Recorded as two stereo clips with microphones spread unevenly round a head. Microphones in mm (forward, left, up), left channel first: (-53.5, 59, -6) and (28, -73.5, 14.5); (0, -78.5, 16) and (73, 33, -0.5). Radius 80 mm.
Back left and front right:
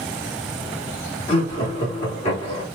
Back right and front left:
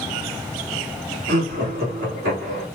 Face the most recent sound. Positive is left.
turn(degrees=75)